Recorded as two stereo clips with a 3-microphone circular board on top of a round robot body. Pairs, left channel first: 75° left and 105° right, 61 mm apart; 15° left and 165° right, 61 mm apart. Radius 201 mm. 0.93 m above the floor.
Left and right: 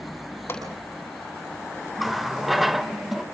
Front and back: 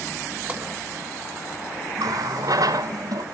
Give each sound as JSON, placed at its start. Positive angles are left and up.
{"t": 0.5, "sound": "a pop", "azimuth_deg": 125, "distance_m": 8.5}
{"t": 2.0, "sound": "a running tap", "azimuth_deg": 165, "distance_m": 0.7}